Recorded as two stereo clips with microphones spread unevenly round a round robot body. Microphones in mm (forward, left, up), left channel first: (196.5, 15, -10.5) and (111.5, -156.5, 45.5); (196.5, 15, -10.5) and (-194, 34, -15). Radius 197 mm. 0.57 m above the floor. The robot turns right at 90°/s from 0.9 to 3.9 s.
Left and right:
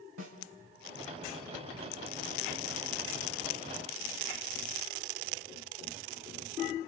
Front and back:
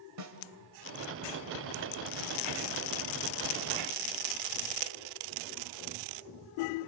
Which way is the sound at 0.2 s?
135° right.